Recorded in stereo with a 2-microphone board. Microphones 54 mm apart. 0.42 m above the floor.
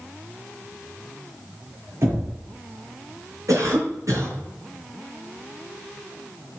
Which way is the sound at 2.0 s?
55° right (ahead or behind).